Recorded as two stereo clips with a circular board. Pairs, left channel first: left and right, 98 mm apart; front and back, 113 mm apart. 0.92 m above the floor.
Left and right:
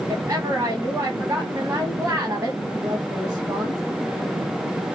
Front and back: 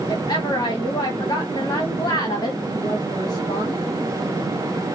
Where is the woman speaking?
45° right, 1.4 m.